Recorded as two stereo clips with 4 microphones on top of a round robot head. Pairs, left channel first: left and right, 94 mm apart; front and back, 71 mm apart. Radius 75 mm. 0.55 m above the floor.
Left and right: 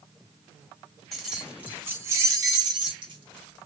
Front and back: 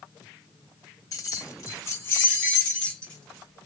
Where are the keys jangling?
5° left, 0.9 m; by 3.7 s 85° right, 1.3 m.